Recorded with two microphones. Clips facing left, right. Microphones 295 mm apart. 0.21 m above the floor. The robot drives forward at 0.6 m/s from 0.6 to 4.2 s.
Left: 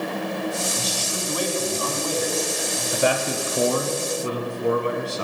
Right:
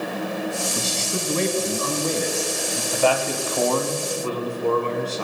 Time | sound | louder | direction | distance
0.8 | a man speaking | right 2 dB | 30° right (ahead or behind) | 2 m
2.9 | a man speaking | right 1 dB | 20° left (ahead or behind) | 1.0 m